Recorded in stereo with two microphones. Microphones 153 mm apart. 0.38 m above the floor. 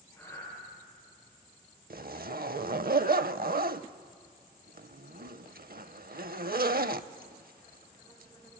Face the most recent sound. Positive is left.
turn(degrees=-75)  # may be behind; listen again after turning